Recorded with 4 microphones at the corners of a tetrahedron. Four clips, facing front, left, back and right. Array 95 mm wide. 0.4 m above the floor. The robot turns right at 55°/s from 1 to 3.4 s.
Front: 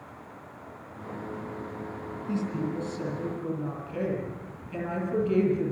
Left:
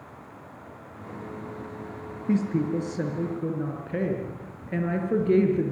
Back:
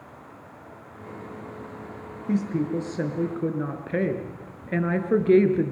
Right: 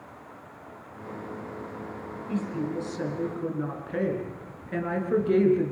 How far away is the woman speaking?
About 5.5 m.